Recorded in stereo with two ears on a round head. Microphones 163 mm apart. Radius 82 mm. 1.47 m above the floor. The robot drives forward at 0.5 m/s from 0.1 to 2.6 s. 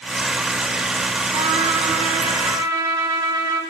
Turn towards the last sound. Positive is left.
turn(degrees=-20)  # may be behind; listen again after turning